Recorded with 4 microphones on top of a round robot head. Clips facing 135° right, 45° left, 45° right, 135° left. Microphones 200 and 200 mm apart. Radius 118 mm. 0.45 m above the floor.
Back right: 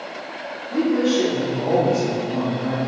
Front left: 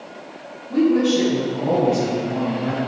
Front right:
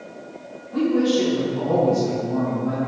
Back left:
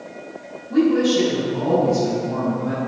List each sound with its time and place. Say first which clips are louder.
0.7 s a woman speaking: front left 2 dB, back left 3 dB; 105° left, 4 m